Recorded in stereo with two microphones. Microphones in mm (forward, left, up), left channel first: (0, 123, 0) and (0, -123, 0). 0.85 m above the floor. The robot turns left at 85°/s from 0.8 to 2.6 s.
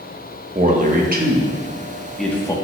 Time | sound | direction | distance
0.6 | a man speaking | 30° right (ahead or behind) | 0.9 m